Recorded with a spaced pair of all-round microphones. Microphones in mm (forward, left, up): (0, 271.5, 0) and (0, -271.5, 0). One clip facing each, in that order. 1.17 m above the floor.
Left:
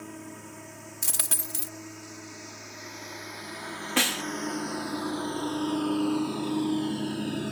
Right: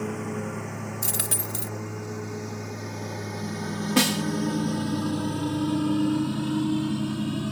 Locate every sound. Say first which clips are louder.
0.0 s a lawn mower: right 11 dB; 80° right; by 7.5 s 20° right (ahead or behind)
1.0 s a dropped coin: right 8 dB; 25° left (ahead or behind)
4.0 s a snare drum: right 7 dB; 60° right (ahead or behind)